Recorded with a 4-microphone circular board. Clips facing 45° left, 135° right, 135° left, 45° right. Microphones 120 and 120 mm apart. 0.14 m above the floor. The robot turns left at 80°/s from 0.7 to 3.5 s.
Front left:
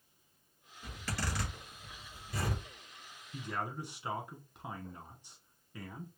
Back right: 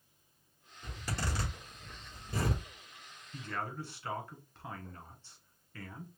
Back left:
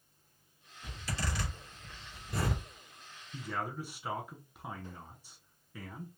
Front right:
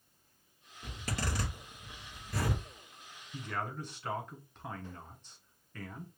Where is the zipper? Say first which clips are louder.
Back right 1 dB, front right 1 dB; 40° right, 3 m; by 2.6 s 175° left, 3 m.